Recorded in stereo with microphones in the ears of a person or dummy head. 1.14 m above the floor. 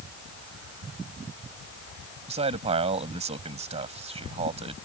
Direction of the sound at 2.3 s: 40° right (ahead or behind).